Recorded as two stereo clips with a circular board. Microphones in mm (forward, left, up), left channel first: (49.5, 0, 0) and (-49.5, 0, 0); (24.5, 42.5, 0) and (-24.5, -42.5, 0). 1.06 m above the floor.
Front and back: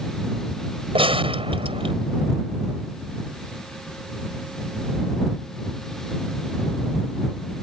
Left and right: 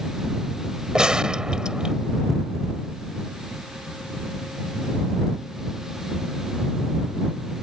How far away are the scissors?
No scissors in this recording.